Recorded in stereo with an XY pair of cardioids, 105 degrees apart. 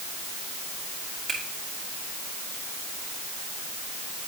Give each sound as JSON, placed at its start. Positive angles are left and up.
{"t": 1.3, "sound": "a finger snap", "azimuth_deg": -55, "distance_m": 3.5}